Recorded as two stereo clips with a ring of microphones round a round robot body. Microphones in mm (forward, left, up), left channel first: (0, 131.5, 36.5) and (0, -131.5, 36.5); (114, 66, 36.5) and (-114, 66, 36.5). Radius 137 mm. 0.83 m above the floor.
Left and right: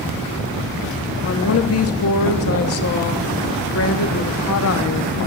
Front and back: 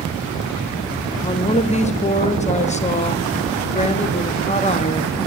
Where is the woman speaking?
60° left, 1.3 m.